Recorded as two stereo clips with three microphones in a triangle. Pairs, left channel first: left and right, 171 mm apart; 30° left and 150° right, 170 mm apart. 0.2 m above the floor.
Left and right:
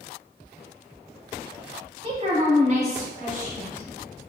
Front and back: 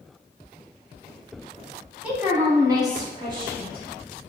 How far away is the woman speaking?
About 1.2 m.